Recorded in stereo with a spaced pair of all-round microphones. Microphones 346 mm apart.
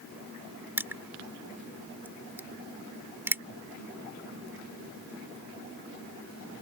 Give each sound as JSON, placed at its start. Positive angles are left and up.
{"t": 0.8, "sound": "crushing", "side_deg": -5}